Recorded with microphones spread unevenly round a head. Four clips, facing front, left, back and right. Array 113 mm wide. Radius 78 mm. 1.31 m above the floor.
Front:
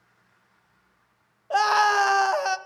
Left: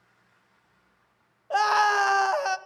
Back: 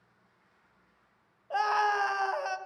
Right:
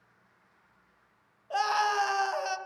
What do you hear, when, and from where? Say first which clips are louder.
1.5 s a scream: left 6 dB, front 7 dB; 20° left, 0.9 m